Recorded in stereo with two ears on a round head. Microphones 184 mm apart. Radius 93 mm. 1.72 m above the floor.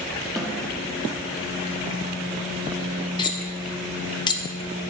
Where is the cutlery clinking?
20° left (ahead or behind), 1.0 m.